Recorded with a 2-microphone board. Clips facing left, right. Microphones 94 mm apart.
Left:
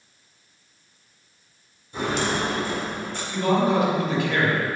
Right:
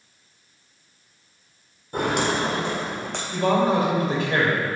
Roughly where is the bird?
I don't hear a bird.